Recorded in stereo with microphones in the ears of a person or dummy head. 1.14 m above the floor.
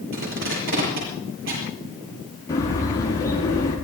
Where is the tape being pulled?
75° right (ahead or behind), 9.5 m.